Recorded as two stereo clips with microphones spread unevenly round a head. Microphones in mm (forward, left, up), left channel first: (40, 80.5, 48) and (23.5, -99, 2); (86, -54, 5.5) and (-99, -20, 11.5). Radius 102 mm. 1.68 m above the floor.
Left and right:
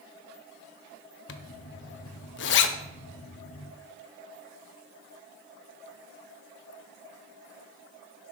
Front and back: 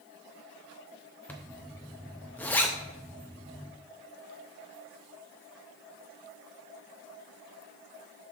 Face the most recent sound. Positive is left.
turn(degrees=75)